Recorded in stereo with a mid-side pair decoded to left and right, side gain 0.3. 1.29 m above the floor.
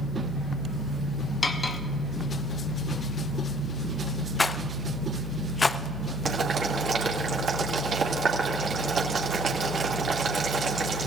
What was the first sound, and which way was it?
Cutlery clinking, 45° left.